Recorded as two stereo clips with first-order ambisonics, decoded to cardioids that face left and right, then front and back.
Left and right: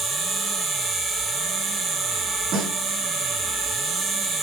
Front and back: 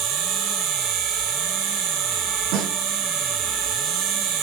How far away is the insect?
About 2.0 m.